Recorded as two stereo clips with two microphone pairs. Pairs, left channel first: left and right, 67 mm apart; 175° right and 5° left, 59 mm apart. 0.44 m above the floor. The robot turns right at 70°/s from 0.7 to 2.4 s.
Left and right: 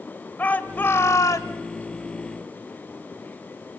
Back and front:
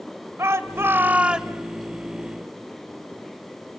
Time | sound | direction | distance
0.4 | a shout | 30° left | 1.4 m